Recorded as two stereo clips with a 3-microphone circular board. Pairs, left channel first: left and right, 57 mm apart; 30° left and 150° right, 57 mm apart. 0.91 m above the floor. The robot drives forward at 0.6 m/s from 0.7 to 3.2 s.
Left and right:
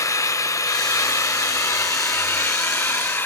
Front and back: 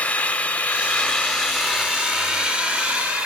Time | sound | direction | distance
0.0 | an engine running | 95° left | 1.3 m